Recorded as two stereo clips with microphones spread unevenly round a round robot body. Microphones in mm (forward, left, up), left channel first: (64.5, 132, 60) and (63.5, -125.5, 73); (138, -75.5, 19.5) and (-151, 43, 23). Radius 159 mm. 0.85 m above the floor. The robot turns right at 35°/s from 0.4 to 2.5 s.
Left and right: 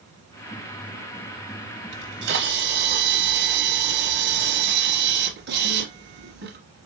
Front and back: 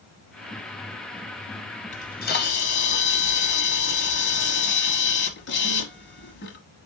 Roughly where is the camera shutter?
Right.